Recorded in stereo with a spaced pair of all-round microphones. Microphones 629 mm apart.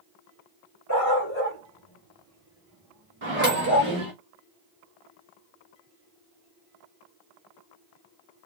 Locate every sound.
0.9 s a dog barking: 25° left (ahead or behind), 2.5 m; by 3.9 s 25° right (ahead or behind), 2.5 m
3.2 s a microwave: 50° right (ahead or behind), 2.5 m